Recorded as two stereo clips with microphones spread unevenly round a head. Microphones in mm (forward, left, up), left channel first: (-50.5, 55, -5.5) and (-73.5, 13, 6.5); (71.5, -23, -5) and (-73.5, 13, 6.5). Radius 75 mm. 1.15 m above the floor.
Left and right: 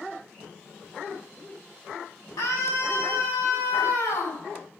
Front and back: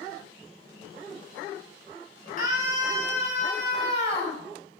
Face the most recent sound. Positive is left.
turn(degrees=40)